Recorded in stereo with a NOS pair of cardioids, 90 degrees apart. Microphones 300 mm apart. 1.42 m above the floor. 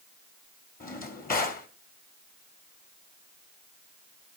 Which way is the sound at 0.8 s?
30° left.